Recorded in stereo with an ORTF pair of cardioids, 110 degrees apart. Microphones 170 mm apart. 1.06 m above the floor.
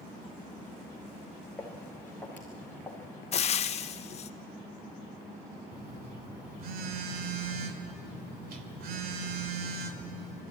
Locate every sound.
1.6 s footsteps: 10° left, 4 m
3.3 s frying: 40° left, 0.7 m
5.7 s a phone buzzing: 65° right, 1.8 m